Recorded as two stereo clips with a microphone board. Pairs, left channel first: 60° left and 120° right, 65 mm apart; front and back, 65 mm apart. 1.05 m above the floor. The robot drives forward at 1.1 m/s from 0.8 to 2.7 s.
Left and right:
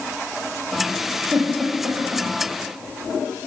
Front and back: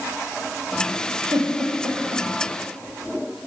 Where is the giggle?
165° right, 9.5 m.